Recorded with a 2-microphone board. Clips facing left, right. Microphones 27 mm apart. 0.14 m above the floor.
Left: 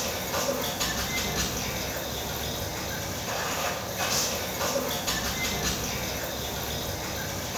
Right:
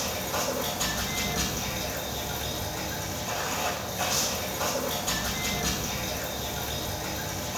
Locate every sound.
0.0 s running water: 25° left (ahead or behind), 1.5 m